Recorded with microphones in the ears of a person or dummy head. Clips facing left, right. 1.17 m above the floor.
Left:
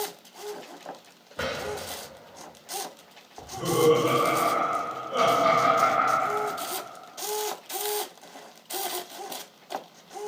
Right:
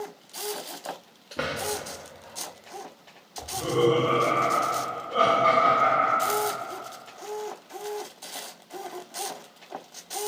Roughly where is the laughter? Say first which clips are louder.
Even; left.